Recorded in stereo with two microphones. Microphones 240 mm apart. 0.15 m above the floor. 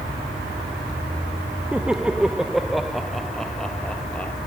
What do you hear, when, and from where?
1.7 s laughter: 5° right (ahead or behind); by 4.3 s 5° left (ahead or behind)